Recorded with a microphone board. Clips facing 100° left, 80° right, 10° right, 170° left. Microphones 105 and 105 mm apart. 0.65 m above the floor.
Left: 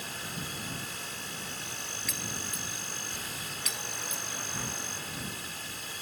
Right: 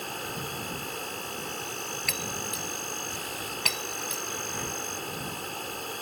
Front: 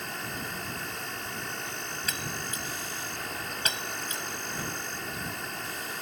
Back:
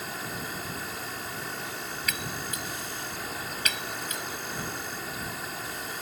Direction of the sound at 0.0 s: 105° right.